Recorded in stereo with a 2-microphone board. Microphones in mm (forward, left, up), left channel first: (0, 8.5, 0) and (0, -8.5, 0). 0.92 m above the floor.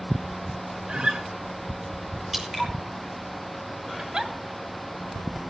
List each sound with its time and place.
0.9 s a guitar: 80° right, 2.5 m
2.3 s dripping: 20° right (ahead or behind), 7 m
4.0 s a giggle: 55° right (ahead or behind), 2.5 m